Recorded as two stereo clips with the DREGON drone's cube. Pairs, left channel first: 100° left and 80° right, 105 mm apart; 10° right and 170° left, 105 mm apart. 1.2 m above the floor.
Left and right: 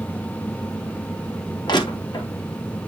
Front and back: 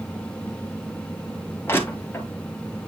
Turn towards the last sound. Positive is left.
turn(degrees=55)